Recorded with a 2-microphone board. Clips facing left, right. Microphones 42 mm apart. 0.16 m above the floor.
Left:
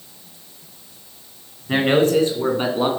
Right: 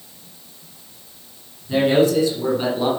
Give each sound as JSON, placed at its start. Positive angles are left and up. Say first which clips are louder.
{"t": 1.7, "sound": "a man speaking", "louder": "even", "side_deg": 45, "distance_m": 2.0}